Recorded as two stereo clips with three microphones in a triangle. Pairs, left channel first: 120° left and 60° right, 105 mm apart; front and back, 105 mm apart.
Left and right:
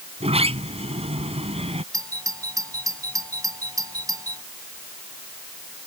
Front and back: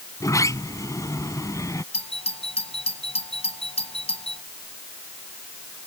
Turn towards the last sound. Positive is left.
turn(degrees=-5)